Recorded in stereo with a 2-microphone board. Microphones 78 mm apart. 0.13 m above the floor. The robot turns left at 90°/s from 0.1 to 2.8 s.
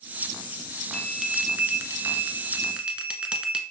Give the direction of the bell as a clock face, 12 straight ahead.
12 o'clock.